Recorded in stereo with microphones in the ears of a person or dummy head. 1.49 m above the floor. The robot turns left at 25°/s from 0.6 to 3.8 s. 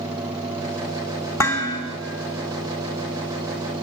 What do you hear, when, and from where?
1.4 s dishes clattering: 15° left (ahead or behind), 1.5 m; by 1.8 s 20° left (ahead or behind), 1.5 m